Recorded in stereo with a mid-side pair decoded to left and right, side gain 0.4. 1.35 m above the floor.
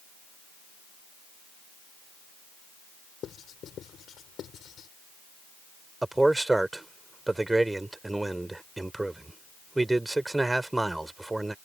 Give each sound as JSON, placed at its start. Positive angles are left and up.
{"t": 3.2, "sound": "writing", "azimuth_deg": 65}
{"t": 6.0, "sound": "a man speaking", "azimuth_deg": -15}